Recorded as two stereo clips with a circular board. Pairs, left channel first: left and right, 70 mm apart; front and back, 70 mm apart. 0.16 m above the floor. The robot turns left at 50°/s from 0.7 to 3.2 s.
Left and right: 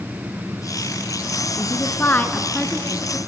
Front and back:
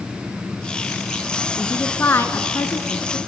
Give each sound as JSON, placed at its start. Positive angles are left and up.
{"t": 1.6, "sound": "a woman speaking", "azimuth_deg": 70, "distance_m": 1.4}